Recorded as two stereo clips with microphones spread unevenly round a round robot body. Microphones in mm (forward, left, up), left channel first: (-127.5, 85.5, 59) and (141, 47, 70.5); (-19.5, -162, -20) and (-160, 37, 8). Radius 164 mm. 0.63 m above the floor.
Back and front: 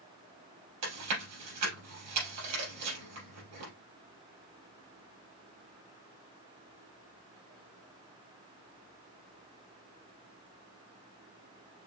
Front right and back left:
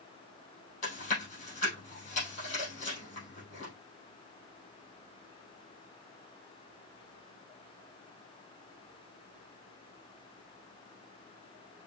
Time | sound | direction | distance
0.8 | chewing | 15° left | 4 m